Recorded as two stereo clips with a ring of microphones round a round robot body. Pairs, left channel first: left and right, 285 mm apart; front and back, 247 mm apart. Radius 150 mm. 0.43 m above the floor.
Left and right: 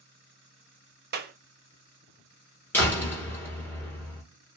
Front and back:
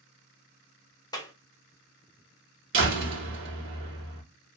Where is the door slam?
170° left, 1.2 m.